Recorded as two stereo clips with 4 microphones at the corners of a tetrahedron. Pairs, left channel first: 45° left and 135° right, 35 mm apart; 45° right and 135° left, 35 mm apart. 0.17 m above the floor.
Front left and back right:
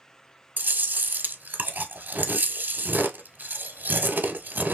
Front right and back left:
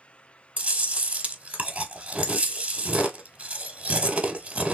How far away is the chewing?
About 0.9 m.